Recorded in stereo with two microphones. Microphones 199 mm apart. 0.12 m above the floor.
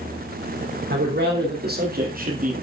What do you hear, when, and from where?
0.9 s a man speaking: 60° right (ahead or behind), 3.5 m; by 2.5 s 40° right (ahead or behind), 2.5 m